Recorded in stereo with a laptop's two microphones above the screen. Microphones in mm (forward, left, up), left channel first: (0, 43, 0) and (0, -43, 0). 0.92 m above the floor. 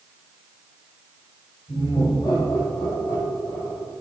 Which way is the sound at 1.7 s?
60° left (ahead or behind).